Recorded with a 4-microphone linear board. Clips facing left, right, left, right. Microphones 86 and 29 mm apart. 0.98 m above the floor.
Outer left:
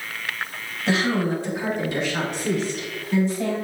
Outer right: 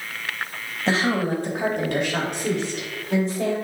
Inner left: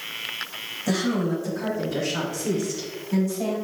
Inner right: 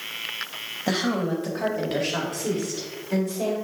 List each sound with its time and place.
0.9 s a woman speaking: 30° right (ahead or behind), 1.4 m; by 3.5 s 80° right, 3 m